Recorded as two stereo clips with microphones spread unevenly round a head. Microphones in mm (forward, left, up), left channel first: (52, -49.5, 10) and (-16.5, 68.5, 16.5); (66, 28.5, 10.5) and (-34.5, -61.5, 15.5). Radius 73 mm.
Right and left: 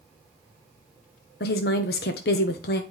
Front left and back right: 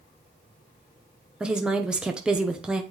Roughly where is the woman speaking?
Ahead right.